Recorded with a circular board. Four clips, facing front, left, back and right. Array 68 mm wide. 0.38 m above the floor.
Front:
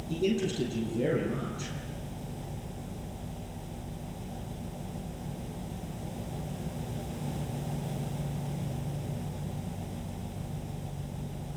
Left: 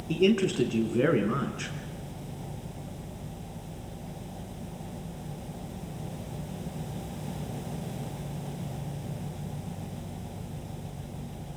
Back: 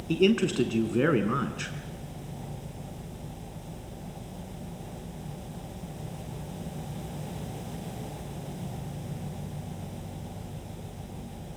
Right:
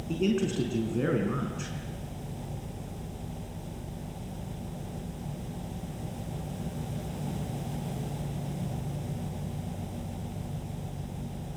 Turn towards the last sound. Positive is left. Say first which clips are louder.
# left 4 dB, back 6 dB
turn(degrees=160)